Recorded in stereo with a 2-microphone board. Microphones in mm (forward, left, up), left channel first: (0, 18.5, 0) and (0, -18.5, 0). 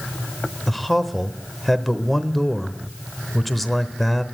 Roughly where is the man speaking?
Centre.